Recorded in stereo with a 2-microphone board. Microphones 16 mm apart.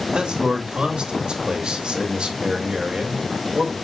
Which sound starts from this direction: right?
A man speaking, at 0.1 s.